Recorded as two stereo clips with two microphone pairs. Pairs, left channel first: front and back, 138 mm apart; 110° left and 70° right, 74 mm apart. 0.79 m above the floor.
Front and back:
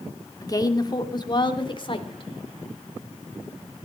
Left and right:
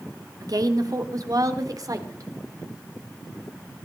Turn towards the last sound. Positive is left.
turn(degrees=-40)